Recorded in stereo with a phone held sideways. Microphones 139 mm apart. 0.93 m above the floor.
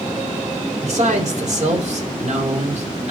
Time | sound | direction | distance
0.8 | a man speaking | 60° right (ahead or behind) | 3.5 m